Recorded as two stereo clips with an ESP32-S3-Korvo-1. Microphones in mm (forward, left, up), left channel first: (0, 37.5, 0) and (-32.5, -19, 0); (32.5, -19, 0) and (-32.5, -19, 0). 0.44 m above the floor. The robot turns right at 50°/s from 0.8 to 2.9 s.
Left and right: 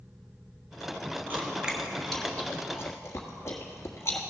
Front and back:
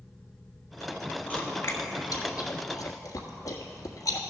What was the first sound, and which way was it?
Chewing, 65° right.